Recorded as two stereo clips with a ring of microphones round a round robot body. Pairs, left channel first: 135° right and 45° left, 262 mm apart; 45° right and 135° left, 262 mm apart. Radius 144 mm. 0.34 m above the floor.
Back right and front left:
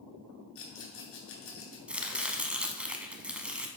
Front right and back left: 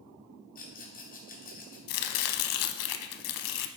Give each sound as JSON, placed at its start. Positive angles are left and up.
{"t": 0.6, "sound": "a rattle", "azimuth_deg": -100, "distance_m": 2.5}
{"t": 1.9, "sound": "chopping", "azimuth_deg": -40, "distance_m": 0.6}